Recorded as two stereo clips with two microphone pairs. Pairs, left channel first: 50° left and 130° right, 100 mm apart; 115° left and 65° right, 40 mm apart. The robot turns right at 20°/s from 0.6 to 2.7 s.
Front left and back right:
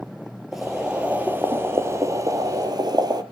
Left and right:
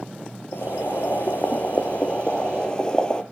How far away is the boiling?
About 1.2 m.